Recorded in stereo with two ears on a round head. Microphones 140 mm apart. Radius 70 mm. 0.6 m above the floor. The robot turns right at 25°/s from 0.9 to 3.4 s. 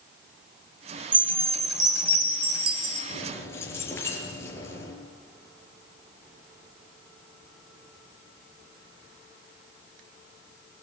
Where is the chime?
150° right, 3 m; by 3.0 s 100° right, 3 m.